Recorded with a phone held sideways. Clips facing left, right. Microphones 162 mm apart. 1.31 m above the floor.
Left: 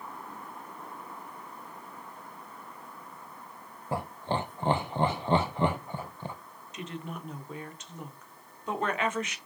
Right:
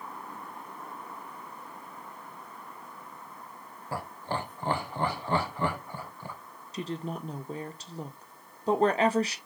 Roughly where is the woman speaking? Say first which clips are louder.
Right 5 dB; right.